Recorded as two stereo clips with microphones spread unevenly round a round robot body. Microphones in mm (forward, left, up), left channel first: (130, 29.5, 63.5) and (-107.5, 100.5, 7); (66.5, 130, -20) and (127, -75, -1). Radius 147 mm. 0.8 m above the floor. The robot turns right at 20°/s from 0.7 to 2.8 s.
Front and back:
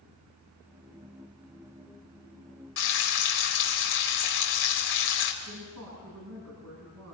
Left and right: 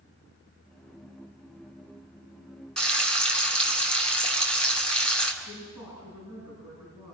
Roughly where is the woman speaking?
Behind left.